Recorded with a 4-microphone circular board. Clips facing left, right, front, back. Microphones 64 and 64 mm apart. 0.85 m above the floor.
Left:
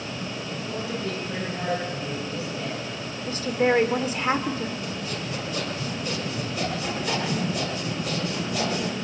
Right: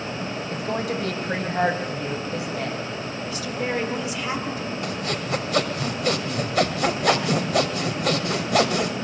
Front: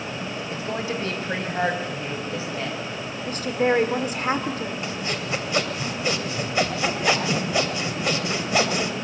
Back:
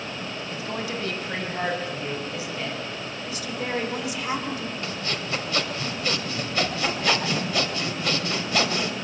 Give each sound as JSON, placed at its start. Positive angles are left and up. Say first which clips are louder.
{"t": 0.5, "sound": "a woman speaking", "louder": "right 6 dB, front 3 dB", "azimuth_deg": -65, "distance_m": 5.0}
{"t": 3.3, "sound": "a woman speaking", "louder": "left 7 dB, front 10 dB", "azimuth_deg": 40, "distance_m": 2.5}
{"t": 4.8, "sound": "sawing", "louder": "right 4 dB, front 2 dB", "azimuth_deg": -70, "distance_m": 2.5}